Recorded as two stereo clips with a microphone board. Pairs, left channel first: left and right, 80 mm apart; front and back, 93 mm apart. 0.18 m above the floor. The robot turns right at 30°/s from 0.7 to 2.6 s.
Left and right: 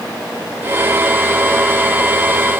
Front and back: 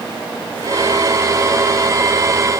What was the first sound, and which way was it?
Only background noise.